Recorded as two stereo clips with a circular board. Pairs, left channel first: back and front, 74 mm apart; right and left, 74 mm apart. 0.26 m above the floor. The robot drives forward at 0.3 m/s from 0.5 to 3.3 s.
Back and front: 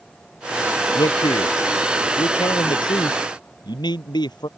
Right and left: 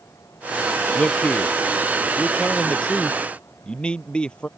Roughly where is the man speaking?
Behind.